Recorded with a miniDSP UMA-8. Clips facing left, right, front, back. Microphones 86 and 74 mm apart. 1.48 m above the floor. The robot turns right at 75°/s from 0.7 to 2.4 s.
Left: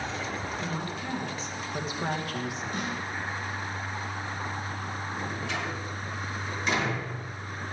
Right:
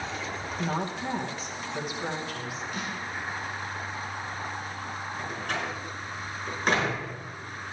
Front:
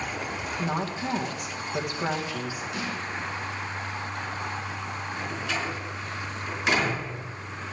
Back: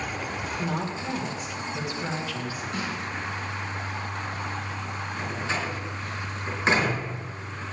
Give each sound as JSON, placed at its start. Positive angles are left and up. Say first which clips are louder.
{"t": 0.6, "sound": "a woman speaking", "louder": "right 3 dB, front 2 dB", "azimuth_deg": -55, "distance_m": 1.9}
{"t": 2.7, "sound": "a snare drum", "louder": "left 2 dB, back 2 dB", "azimuth_deg": 140, "distance_m": 4.0}
{"t": 5.2, "sound": "a door slam", "louder": "right 2 dB, back 2 dB", "azimuth_deg": -125, "distance_m": 5.0}